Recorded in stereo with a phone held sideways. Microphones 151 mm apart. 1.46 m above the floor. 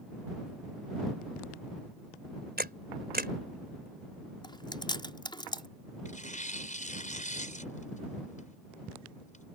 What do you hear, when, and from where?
2.6 s a camera shutter: 85° right
4.4 s chewing: 30° left (ahead or behind)
6.0 s tearing paper: 50° left (ahead or behind)